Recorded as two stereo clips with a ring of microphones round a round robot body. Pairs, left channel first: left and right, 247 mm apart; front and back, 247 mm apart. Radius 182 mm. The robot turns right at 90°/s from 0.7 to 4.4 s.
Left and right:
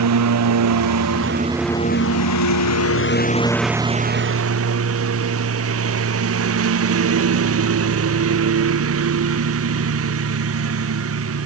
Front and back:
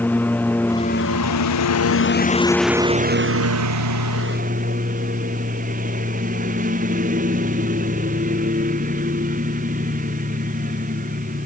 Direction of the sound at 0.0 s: 85° right.